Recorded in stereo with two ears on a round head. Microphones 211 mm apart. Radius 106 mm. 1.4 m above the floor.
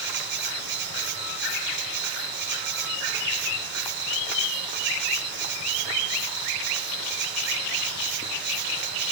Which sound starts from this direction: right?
An insect, at 0.0 s.